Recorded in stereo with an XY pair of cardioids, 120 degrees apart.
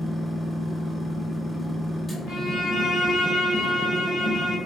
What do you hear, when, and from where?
0.0 s a machine running: straight ahead, 0.8 m
2.3 s a violin: 60° left, 1.3 m